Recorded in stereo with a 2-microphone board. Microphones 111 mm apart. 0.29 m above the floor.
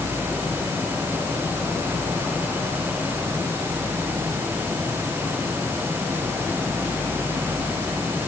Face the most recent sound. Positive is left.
No sound to turn to.